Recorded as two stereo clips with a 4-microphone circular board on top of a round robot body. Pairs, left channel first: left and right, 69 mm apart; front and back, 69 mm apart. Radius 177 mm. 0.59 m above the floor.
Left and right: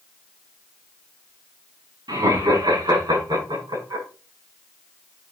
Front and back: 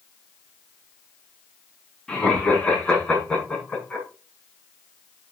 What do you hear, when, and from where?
2.1 s laughter: 80° right, 7.5 m; by 4.0 s 75° right, 7.5 m